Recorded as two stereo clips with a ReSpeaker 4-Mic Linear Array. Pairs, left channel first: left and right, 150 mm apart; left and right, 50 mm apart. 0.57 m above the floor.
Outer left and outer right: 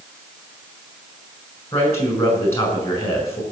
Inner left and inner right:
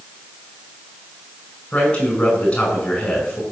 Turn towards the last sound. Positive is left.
turn(degrees=20)  # may be behind; listen again after turning